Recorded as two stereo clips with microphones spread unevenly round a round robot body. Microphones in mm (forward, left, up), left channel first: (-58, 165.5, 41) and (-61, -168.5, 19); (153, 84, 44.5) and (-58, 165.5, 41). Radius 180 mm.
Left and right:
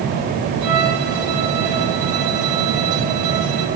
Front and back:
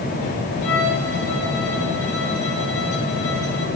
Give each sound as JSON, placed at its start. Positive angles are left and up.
{"t": 0.6, "sound": "a violin", "azimuth_deg": -60, "distance_m": 7.5}